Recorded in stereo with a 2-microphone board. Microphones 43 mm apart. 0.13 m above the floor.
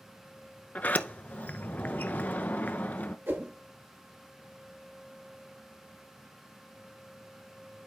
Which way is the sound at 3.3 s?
60° right (ahead or behind).